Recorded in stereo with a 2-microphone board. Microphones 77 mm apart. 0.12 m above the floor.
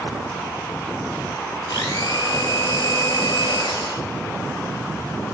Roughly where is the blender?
Left.